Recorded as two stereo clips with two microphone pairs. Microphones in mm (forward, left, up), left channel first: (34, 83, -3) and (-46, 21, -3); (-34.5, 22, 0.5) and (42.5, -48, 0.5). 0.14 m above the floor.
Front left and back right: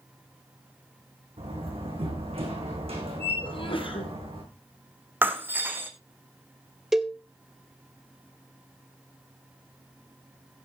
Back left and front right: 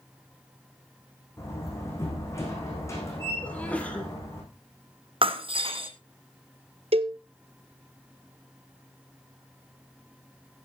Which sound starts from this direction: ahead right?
A cowbell, at 6.9 s.